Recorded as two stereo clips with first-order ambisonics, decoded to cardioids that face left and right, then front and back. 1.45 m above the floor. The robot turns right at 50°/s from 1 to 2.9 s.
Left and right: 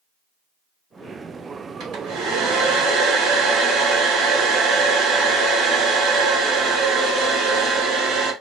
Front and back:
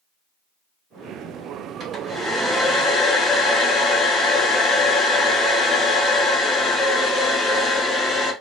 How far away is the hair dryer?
About 1.7 m.